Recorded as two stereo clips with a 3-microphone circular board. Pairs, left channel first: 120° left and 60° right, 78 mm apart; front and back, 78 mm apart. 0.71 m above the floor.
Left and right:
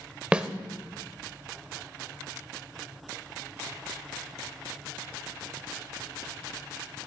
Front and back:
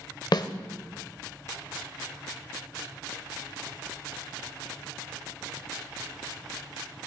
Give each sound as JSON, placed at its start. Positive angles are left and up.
{"t": 0.3, "sound": "a snare drum", "azimuth_deg": 15, "distance_m": 0.7}